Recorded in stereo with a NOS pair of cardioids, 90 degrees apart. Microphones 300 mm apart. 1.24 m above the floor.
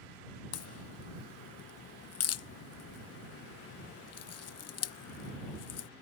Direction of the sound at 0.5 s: 55° left.